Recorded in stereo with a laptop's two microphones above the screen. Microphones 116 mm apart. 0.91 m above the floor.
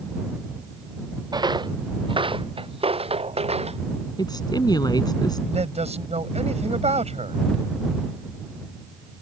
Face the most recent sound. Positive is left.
turn(degrees=-65)  # may be behind; listen again after turning